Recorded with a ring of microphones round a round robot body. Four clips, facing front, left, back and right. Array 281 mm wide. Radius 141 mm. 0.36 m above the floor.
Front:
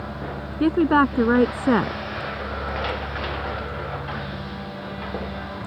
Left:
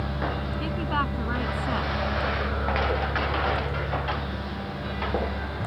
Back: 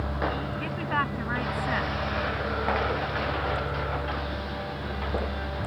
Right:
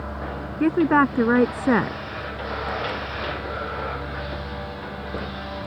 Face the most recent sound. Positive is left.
turn(degrees=-40)